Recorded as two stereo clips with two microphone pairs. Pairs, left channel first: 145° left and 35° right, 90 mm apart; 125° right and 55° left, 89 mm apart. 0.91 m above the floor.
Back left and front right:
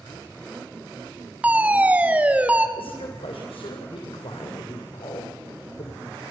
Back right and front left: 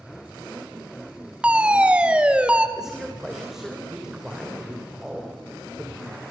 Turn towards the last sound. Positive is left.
turn(degrees=135)